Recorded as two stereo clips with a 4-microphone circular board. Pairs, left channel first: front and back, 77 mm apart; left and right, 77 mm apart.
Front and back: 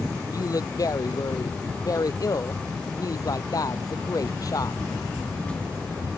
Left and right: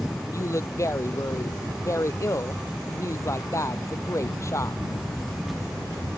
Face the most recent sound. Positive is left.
turn(degrees=40)